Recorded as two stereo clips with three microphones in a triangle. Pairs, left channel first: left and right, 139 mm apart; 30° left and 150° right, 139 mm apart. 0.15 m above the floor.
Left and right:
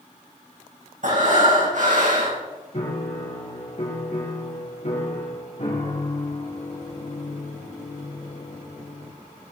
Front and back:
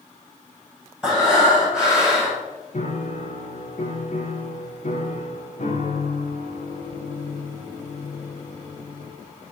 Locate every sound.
1.0 s breathing: 65° right, 8.5 m
2.7 s a piano: 55° left, 5.5 m